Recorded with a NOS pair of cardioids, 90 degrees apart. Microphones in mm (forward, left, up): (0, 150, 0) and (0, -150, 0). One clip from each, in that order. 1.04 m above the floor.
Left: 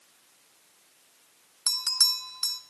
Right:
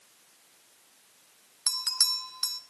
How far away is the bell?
About 0.6 m.